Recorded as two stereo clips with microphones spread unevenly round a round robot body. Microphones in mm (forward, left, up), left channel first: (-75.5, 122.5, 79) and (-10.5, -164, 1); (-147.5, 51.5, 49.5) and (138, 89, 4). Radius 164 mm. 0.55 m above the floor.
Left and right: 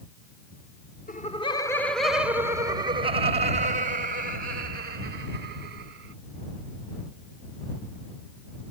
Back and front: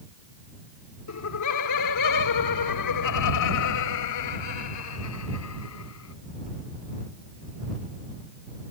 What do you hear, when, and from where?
1.1 s laughter: 170° left; by 6.1 s 125° right